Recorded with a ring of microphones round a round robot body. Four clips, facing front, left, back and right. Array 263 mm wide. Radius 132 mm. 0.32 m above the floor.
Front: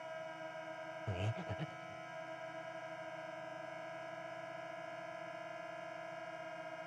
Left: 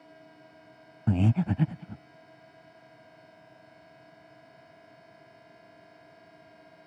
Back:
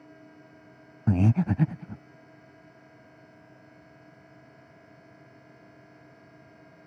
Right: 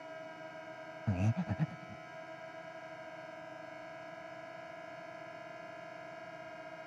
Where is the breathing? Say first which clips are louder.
Left 10 dB, back 20 dB; 150° left.